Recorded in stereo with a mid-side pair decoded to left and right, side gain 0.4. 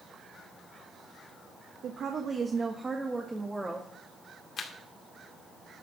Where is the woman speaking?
70° right, 1.4 m; by 3.9 s 5° right, 2 m.